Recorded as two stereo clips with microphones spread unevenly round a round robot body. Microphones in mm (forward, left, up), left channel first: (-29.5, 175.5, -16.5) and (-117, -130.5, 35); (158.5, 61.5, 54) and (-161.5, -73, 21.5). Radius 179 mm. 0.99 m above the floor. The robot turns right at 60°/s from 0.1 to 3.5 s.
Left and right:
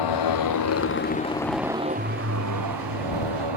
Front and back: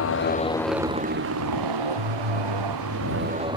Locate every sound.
0.0 s a motorcycle: 75° left; by 3.6 s 80° right